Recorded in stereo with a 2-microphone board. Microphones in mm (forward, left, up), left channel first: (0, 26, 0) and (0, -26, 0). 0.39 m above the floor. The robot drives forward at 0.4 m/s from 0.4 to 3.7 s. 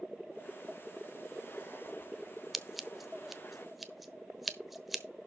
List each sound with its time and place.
2.5 s scissors: 5° right (ahead or behind), 0.7 m